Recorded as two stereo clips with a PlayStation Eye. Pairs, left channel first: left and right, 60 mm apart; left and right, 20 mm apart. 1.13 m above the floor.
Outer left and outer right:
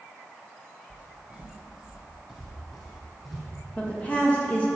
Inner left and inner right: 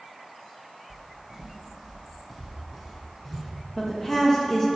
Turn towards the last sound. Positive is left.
turn(degrees=25)  # may be behind; listen again after turning